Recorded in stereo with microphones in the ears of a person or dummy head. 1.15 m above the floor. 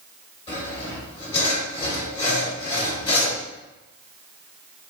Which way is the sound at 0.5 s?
30° left (ahead or behind).